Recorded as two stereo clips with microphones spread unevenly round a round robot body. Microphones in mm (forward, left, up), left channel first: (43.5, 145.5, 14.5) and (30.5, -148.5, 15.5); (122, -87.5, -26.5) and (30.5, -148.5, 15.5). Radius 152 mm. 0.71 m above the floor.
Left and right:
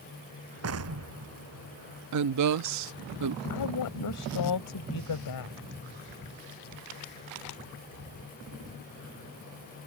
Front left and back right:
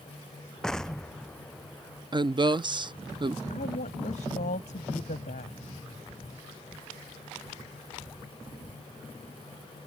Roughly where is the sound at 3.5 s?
Left.